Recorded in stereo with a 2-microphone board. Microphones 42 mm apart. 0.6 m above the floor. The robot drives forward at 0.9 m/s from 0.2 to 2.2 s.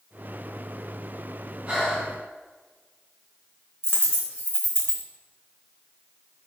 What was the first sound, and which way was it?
Breathing, 25° right (ahead or behind).